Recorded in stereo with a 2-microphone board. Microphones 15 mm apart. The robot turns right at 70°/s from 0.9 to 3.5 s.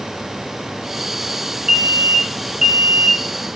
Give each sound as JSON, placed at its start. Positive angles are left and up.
{"t": 1.7, "sound": "an alarm", "side_deg": -45, "distance_m": 2.5}